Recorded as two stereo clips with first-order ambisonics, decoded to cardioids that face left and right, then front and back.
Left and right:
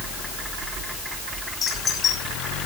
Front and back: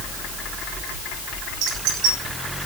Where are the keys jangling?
155° left, 7.5 m.